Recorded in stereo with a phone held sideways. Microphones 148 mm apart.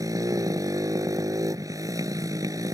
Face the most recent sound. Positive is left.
turn(degrees=-25)  # may be behind; listen again after turning